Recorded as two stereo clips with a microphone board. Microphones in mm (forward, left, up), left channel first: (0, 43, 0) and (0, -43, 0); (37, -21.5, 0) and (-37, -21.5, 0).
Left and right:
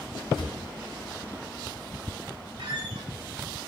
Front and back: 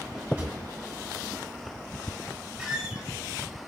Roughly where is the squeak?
Right.